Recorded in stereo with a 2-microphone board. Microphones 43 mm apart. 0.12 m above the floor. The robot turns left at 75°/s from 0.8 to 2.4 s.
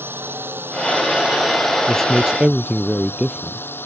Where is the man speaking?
15° left; by 3.6 s 25° right.